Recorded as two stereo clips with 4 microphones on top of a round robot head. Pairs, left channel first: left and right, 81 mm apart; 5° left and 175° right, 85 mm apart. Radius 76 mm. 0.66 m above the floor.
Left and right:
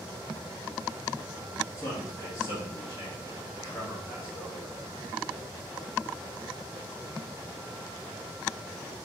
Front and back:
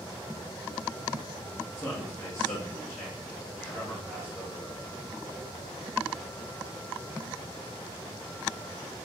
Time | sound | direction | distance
1.8 | a man speaking | 60° left | 1.4 m